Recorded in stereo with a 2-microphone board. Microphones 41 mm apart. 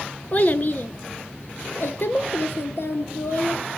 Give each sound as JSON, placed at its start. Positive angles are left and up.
{"t": 0.3, "sound": "a child speaking", "side_deg": 35, "distance_m": 1.1}